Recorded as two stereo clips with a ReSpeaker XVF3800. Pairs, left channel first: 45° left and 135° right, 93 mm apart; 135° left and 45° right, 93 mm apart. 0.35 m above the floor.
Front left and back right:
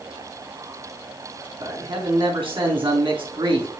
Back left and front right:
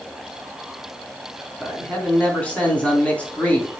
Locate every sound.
1.6 s a man speaking: 150° right, 4 m